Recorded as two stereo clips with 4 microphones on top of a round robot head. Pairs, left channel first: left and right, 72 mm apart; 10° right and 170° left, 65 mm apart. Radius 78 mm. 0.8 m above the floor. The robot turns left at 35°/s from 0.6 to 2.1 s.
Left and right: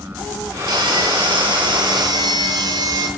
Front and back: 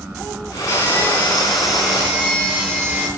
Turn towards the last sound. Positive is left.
turn(degrees=-120)